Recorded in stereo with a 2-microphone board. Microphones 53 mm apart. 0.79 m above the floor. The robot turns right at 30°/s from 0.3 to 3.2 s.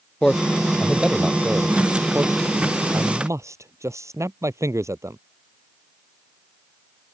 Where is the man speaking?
10° left (ahead or behind); by 5.2 s 75° right (ahead or behind).